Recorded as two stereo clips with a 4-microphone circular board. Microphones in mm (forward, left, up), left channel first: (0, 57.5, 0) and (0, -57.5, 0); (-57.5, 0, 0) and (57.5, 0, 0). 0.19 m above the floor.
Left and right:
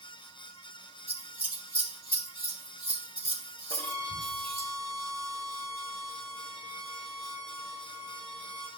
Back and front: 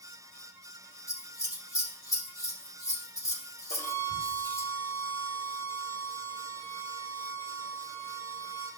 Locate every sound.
1.1 s scissors: 120° left, 4.5 m
3.7 s a violin: 140° left, 3.5 m